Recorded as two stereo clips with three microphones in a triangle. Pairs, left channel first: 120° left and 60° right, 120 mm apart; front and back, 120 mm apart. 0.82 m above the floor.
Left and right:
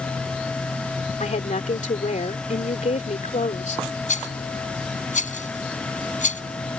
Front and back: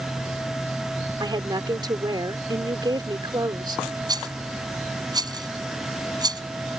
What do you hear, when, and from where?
1.2 s a woman speaking: 125° left
4.1 s a rattle: 120° left